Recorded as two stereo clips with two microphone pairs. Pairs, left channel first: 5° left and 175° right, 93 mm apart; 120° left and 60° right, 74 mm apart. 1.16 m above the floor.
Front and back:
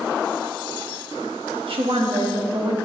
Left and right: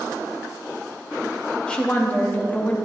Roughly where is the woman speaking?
Behind.